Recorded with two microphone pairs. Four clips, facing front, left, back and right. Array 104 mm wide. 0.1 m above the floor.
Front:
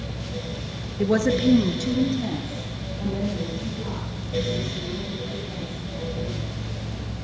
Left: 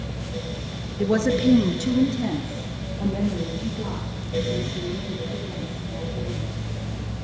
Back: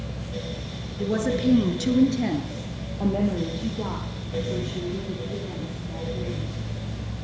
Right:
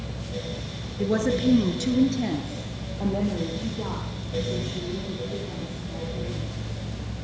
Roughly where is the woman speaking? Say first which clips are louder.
Left 3 dB, front 4 dB; ahead left.